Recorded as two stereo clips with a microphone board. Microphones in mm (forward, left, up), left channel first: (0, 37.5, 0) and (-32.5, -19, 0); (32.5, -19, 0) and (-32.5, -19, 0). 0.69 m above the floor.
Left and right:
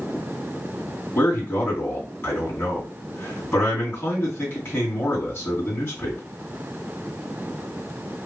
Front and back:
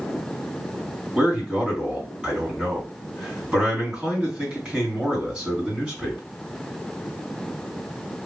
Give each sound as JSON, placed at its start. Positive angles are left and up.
{"t": 1.1, "sound": "a man speaking", "azimuth_deg": 100, "distance_m": 2.5}